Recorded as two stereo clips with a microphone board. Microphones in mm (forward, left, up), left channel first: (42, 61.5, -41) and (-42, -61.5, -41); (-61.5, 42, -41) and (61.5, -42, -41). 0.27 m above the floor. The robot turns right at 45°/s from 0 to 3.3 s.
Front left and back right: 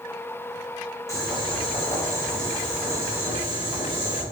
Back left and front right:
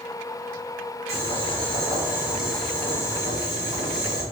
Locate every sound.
1.1 s boiling: 10° right, 1.4 m; by 4.2 s 90° left, 1.4 m